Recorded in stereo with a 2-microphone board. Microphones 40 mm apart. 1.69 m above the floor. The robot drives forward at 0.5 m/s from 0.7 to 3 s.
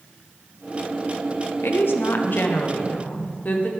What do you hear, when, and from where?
1.6 s a woman speaking: 70° left (ahead or behind), 0.9 m; by 3.7 s 45° left (ahead or behind), 1.3 m